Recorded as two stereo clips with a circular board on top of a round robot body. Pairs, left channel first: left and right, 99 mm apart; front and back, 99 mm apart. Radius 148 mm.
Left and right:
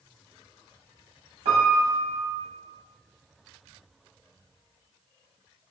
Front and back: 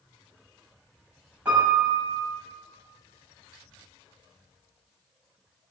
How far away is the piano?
About 0.7 m.